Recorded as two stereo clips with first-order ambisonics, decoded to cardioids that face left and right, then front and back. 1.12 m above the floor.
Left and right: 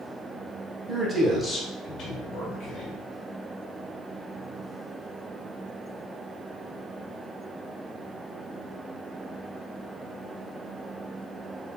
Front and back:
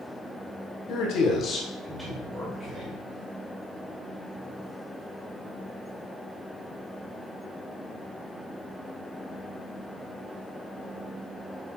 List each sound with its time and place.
0.9 s a man speaking: 25° right, 1.0 m; by 3.0 s 135° left, 1.4 m